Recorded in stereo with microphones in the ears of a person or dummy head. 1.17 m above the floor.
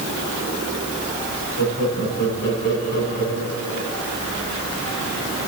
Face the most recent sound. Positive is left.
turn(degrees=50)  # may be behind; listen again after turning